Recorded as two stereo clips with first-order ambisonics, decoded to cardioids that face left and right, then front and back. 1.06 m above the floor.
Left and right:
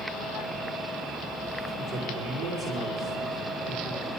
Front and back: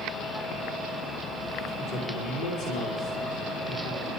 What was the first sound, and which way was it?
A man speaking, 30° right.